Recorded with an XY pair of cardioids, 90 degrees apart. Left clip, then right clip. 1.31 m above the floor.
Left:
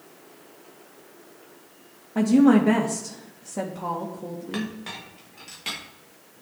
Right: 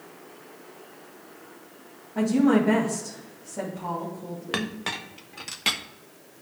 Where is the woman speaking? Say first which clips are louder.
Left 3 dB; 55° left, 1.6 m.